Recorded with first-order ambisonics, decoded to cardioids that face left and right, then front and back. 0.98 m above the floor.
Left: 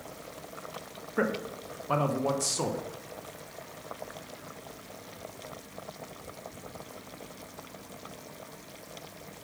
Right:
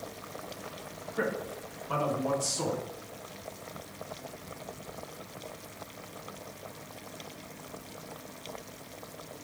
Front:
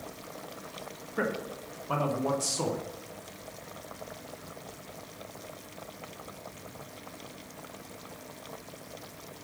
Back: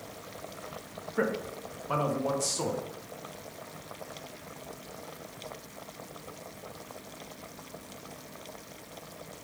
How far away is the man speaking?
About 0.6 m.